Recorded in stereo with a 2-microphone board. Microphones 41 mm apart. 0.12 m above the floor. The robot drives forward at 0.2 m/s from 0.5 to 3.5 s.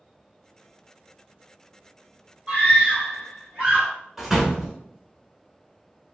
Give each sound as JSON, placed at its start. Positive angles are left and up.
{"t": 2.5, "sound": "a scream", "side_deg": -35, "distance_m": 1.8}
{"t": 4.2, "sound": "a door slam", "side_deg": -10, "distance_m": 0.8}